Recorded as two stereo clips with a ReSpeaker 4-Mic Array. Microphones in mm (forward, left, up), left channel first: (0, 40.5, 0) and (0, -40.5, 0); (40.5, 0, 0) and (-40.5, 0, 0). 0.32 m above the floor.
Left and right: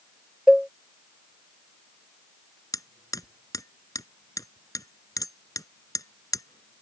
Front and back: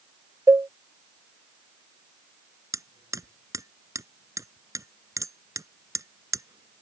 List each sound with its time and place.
0.5 s a cowbell: 175° right
2.7 s hammering: 135° left